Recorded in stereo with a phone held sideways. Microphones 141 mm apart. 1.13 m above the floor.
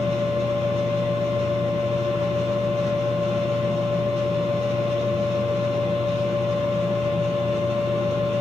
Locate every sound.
0.0 s a machine running: 50° right (ahead or behind), 3.5 m